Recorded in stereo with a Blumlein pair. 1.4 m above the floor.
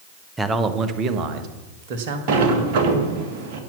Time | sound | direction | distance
0.4 | a man speaking | 10° right | 1.0 m
2.3 | a sliding door | 50° right | 1.6 m